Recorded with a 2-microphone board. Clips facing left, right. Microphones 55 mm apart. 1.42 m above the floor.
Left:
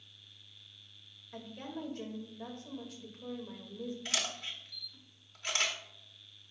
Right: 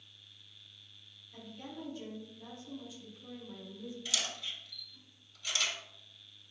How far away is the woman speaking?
About 2 m.